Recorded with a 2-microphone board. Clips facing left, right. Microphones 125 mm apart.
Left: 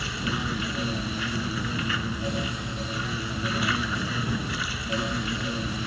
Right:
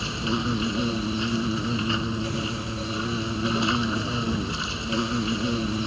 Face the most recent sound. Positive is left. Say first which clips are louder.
# right 4 dB
turn(degrees=-25)  # may be behind; listen again after turning